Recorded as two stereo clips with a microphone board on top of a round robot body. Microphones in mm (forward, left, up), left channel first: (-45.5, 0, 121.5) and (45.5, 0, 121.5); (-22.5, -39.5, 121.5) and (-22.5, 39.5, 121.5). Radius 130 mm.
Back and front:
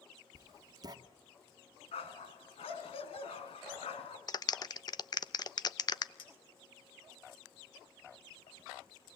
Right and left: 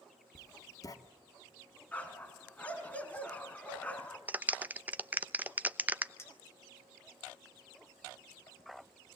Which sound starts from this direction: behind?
A dog barking, at 1.9 s.